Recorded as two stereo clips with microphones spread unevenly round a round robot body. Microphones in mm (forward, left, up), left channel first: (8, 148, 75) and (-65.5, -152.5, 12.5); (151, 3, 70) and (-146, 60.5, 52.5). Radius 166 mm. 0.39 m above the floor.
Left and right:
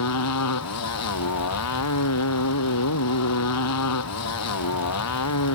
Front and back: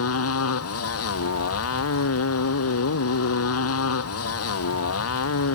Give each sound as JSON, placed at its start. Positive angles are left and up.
{"t": 0.0, "sound": "a motorcycle", "azimuth_deg": 30}